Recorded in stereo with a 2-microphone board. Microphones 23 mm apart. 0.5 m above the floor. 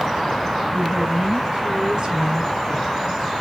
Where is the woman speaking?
55° right (ahead or behind), 3.5 m; by 2.9 s 25° right (ahead or behind), 5 m.